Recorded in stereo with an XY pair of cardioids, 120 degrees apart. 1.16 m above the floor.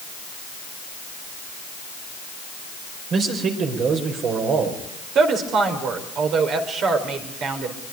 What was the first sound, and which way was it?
A man speaking, 55° right.